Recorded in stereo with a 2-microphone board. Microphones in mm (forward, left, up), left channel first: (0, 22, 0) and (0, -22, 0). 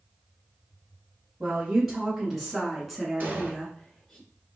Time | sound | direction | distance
1.4 | a woman speaking | 10° right (ahead or behind) | 1.6 m
3.2 | an explosion | 45° right (ahead or behind) | 1.4 m